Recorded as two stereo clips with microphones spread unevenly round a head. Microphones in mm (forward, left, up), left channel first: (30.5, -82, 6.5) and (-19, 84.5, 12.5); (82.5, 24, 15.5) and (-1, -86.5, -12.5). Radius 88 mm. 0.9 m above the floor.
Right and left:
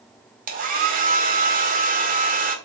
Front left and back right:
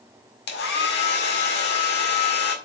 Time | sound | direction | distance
0.5 | a hair dryer | 60° left | 1.9 m